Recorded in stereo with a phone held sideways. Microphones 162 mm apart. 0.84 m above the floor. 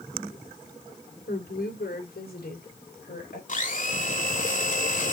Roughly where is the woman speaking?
Left.